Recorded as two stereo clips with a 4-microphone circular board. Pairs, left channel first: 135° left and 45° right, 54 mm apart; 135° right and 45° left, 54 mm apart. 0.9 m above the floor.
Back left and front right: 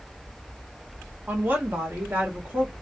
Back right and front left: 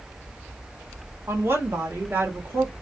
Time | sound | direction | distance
1.3 | a woman speaking | 10° left | 1.7 m